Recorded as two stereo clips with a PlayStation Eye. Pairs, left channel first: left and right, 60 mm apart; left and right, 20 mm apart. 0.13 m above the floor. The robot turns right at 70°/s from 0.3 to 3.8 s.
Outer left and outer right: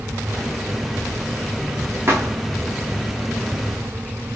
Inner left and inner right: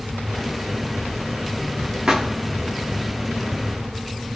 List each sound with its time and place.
2.1 s a thud: 40° right (ahead or behind), 7 m; by 2.4 s 60° right (ahead or behind), 7 m